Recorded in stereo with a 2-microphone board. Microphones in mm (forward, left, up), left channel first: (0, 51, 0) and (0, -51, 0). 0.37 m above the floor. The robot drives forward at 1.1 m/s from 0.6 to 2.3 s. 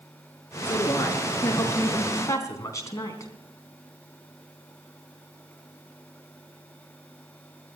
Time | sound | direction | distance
0.7 | a woman speaking | 20° left (ahead or behind) | 5 m